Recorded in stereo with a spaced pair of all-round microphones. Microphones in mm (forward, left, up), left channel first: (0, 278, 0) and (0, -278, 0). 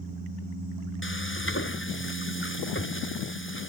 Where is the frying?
20° left (ahead or behind).